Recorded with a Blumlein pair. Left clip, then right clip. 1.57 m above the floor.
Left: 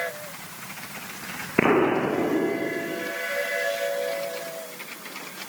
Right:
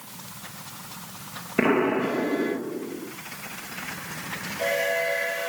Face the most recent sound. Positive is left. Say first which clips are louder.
# left 2 dB
turn(degrees=10)